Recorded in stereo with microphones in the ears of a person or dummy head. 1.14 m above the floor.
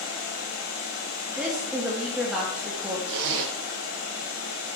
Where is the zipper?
70° right (ahead or behind), 1.7 m.